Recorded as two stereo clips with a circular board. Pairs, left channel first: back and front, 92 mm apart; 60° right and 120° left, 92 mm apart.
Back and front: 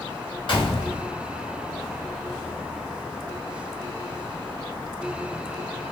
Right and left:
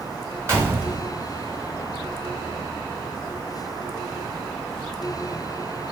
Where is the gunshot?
Straight behind, 1.2 m.